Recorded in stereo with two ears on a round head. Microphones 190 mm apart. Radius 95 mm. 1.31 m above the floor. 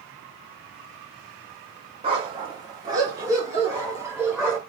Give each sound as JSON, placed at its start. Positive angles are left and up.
{"t": 2.0, "sound": "a dog barking", "side_deg": -25, "distance_m": 1.1}